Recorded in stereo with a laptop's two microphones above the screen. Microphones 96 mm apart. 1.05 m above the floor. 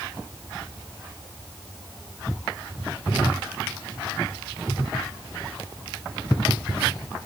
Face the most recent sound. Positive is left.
No sound to turn to.